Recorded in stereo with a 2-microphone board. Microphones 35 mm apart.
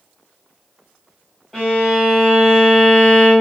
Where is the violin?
5° left (ahead or behind), 1.4 m.